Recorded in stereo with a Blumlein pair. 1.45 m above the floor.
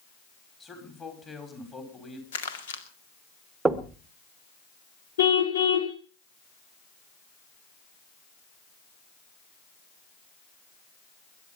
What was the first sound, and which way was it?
A man speaking, 20° left.